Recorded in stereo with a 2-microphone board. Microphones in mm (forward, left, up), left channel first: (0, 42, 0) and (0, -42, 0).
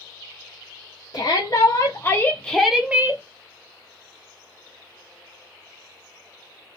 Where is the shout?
55° left (ahead or behind), 1.1 m; by 3.2 s 30° right (ahead or behind), 0.7 m.